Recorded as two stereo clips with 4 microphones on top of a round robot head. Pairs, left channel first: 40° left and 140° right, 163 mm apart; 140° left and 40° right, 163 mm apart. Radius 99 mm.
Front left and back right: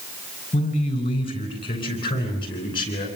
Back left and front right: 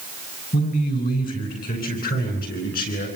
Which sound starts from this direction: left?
A man speaking, at 0.5 s.